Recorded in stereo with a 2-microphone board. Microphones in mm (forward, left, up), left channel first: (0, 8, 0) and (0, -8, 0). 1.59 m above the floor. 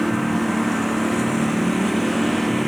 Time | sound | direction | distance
0.0 | a lawn mower | 5° left (ahead or behind) | ?